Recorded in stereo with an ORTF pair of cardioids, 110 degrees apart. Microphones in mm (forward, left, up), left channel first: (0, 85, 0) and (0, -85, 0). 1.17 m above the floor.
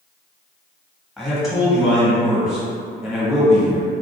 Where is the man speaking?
Straight ahead, 1.1 m.